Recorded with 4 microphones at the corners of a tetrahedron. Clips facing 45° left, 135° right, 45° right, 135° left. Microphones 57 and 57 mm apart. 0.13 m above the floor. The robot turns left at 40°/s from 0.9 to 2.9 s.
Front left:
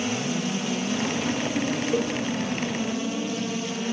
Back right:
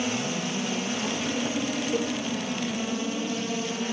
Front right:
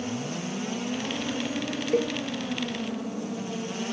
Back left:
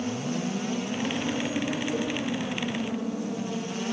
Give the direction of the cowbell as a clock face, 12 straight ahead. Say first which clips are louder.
Front left 3 dB, front right 4 dB; 1 o'clock.